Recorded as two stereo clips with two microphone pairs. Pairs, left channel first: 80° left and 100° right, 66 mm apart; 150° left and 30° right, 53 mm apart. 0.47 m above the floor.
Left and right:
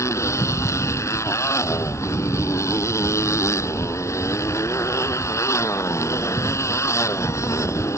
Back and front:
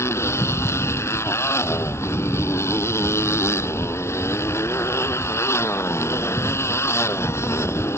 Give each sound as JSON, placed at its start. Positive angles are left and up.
{"t": 0.0, "sound": "a motorcycle", "azimuth_deg": 120}